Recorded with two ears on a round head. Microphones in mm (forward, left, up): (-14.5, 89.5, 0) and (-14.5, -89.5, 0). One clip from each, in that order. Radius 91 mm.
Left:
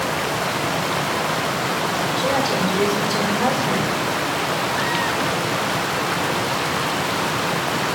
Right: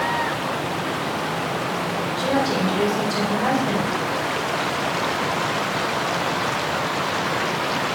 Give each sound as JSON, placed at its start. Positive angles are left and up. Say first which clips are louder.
{"t": 2.2, "sound": "a woman speaking", "louder": "even", "side_deg": 70, "distance_m": 5.0}